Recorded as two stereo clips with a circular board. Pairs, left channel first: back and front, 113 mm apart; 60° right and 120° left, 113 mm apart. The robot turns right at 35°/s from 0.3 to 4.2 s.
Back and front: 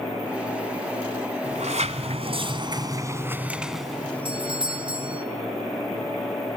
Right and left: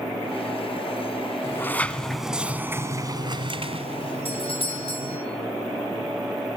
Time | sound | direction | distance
1.4 | a sliding door | 5° left | 1.3 m
4.2 | a doorbell | 35° right | 3 m